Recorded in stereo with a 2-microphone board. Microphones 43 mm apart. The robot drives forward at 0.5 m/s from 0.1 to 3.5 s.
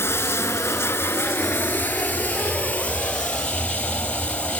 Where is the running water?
75° left (ahead or behind), 0.7 m; by 4.6 s 25° left (ahead or behind), 1.7 m.